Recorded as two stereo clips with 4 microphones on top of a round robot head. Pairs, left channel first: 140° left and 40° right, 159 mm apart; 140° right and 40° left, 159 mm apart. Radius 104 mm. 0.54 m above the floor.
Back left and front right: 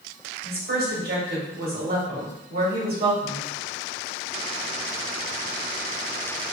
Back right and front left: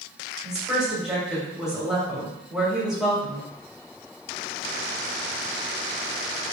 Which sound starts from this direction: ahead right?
A woman speaking, at 0.4 s.